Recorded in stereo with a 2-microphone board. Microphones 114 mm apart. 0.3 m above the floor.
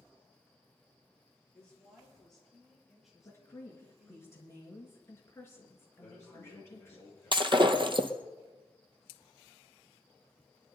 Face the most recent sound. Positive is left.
turn(degrees=-45)  # may be behind; listen again after turning